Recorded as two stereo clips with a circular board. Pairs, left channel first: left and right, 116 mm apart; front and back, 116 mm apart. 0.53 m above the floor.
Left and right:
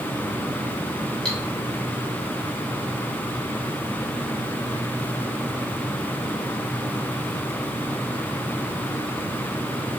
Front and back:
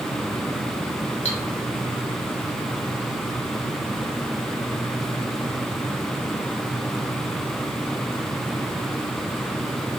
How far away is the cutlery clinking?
About 1.7 m.